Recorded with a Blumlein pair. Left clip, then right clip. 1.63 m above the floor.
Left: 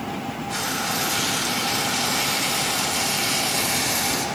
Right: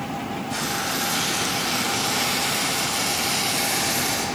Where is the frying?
5° left, 3.5 m.